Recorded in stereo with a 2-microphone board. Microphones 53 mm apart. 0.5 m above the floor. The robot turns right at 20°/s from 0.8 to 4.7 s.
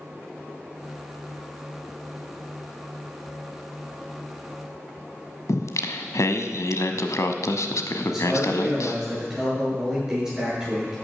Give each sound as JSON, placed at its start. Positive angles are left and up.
{"t": 5.5, "sound": "singing", "side_deg": 75, "distance_m": 1.1}
{"t": 8.0, "sound": "a man speaking", "side_deg": -10, "distance_m": 8.5}